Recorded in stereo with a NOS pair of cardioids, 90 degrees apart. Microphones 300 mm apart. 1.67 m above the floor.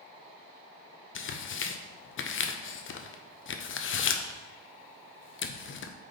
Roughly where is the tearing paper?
Ahead left.